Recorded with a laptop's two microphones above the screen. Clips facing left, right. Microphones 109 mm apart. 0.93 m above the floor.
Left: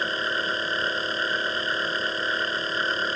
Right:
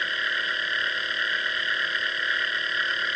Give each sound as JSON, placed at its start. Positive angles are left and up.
{"t": 0.0, "sound": "a machine running", "side_deg": 30}